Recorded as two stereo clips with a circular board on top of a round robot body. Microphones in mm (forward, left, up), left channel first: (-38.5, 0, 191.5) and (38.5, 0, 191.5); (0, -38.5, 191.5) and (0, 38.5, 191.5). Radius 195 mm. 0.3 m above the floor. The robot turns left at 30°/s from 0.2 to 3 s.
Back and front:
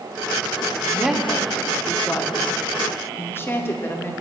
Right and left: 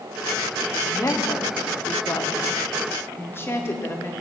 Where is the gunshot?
I don't hear a gunshot.